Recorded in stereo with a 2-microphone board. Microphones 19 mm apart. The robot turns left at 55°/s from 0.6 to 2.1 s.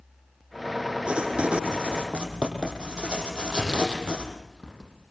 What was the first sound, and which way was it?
Writing, 70° right.